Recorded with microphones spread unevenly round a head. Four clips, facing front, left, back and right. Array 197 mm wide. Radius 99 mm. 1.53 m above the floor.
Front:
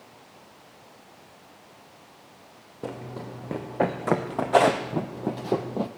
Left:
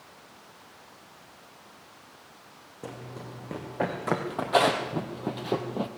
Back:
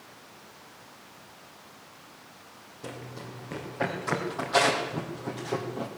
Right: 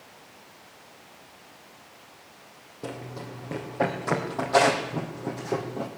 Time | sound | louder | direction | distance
2.8 | running footsteps | right 4 dB, front 5 dB | 15° right | 3.5 m